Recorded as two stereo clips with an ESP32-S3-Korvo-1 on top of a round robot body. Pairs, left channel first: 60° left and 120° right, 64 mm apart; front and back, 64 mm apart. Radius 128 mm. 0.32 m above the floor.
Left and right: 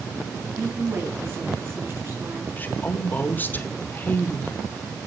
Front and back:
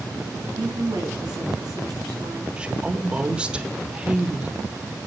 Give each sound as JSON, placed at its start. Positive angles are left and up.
{"t": 0.6, "sound": "a woman speaking", "azimuth_deg": -165, "distance_m": 5.0}
{"t": 2.6, "sound": "a woman speaking", "azimuth_deg": 110, "distance_m": 1.2}